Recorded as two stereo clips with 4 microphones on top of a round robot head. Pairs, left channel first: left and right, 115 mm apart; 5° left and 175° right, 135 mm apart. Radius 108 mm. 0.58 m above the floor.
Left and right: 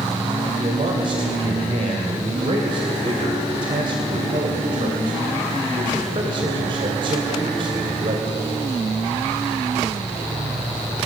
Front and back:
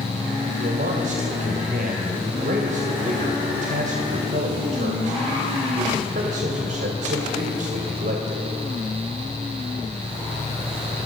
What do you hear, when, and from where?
0.6 s a man speaking: 145° right, 2.5 m